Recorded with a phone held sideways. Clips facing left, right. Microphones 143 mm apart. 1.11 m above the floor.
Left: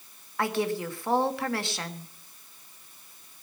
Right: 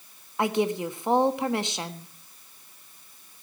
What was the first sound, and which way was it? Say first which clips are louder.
A woman speaking: right 3 dB; 20° right (ahead or behind).